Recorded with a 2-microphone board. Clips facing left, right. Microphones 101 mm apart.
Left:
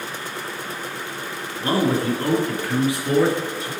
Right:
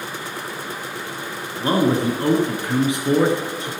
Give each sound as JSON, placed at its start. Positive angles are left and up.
{"t": 1.6, "sound": "a man speaking", "side_deg": -25, "distance_m": 1.8}